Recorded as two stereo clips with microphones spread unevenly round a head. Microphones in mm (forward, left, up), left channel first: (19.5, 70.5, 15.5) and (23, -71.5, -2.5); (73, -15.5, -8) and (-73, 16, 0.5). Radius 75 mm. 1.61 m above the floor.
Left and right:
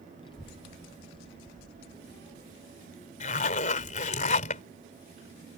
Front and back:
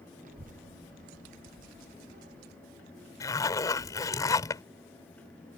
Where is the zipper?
55° left.